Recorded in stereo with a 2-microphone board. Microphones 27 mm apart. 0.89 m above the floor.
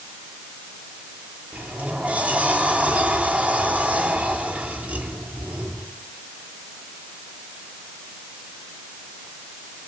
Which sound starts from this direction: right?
A sliding door, at 1.5 s.